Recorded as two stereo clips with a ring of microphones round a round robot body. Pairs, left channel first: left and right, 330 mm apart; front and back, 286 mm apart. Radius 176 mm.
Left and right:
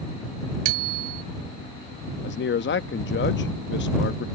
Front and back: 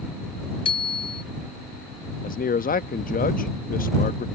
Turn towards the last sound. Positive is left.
turn(degrees=50)